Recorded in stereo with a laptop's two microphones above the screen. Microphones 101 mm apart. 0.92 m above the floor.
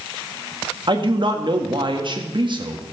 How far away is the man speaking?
About 1.6 m.